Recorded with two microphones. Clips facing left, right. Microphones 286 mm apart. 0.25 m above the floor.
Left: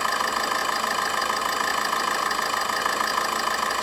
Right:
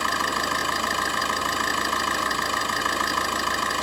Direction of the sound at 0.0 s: 40° right (ahead or behind).